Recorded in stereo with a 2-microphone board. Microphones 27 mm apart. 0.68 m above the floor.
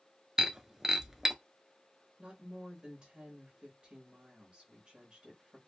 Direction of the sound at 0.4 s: 20° right (ahead or behind).